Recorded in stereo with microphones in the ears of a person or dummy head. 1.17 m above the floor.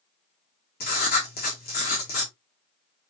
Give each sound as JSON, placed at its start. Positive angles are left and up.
{"t": 0.8, "sound": "writing", "side_deg": 55, "distance_m": 1.8}